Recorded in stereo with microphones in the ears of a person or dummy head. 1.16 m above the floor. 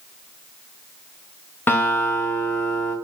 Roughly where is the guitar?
Centre.